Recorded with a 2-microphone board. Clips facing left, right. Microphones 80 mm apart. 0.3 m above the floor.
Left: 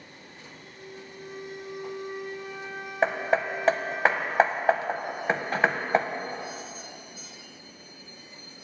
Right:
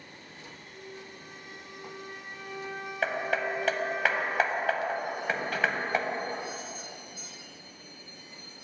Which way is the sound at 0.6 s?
5° right (ahead or behind).